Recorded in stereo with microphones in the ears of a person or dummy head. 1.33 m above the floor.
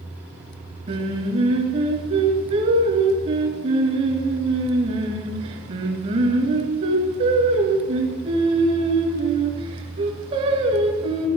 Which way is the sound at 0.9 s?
40° right (ahead or behind).